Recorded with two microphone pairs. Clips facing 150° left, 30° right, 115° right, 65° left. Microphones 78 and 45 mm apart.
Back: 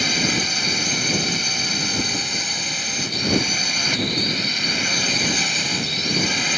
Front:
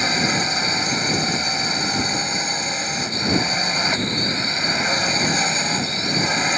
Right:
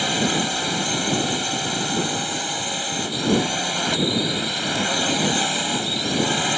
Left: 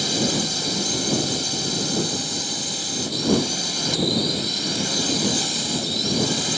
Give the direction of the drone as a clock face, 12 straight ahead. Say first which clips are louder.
Front 2 dB, right 2 dB; 3 o'clock.